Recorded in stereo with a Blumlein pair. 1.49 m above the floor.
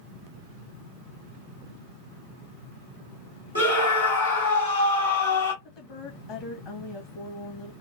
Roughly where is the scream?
Left.